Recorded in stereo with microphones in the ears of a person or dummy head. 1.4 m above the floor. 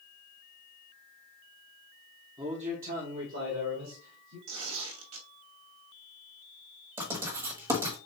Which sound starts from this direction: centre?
A man speaking, at 2.4 s.